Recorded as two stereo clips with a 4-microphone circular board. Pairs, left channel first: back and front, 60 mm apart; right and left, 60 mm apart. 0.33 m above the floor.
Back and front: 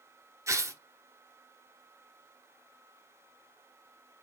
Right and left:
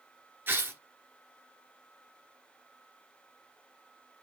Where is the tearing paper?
35° left, 1.5 m.